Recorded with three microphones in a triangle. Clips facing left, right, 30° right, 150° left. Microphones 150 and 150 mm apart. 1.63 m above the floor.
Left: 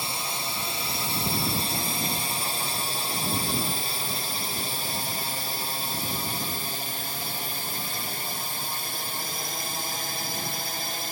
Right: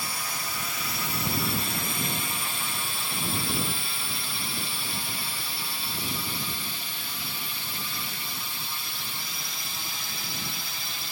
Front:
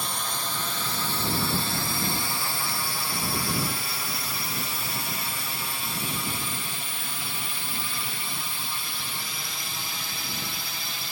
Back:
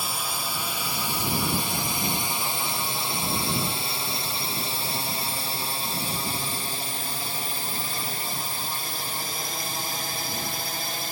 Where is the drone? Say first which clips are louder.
Left 3 dB, back 1 dB; 75° left; by 11.1 s 120° left.